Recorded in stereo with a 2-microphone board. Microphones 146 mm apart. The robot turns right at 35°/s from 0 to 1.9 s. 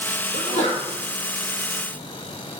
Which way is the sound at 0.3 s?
60° left (ahead or behind).